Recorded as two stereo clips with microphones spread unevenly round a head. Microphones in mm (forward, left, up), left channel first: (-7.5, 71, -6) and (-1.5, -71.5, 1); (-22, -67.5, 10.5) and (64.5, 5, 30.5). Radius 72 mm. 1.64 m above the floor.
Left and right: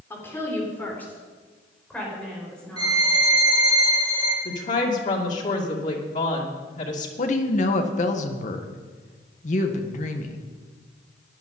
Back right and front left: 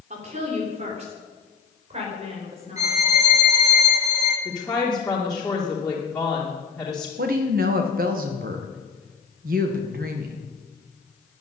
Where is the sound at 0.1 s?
15° left, 4 m; by 3.0 s 5° left, 6 m.